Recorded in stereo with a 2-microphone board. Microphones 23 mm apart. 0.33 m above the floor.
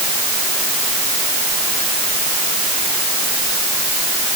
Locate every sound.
Only background noise.